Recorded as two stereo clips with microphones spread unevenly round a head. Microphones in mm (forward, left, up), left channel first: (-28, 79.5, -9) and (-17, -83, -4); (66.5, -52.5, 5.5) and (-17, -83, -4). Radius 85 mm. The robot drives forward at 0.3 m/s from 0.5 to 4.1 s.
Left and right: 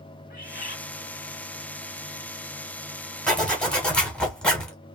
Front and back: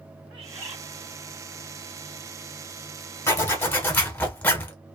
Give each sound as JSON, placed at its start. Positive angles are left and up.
{"t": 0.3, "sound": "a bird", "azimuth_deg": 110, "distance_m": 1.0}
{"t": 3.3, "sound": "a zipper", "azimuth_deg": 10, "distance_m": 1.6}